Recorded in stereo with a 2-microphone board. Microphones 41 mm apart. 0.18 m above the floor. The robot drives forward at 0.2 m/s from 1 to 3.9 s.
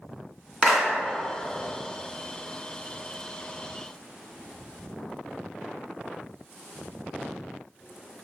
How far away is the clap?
About 1.9 m.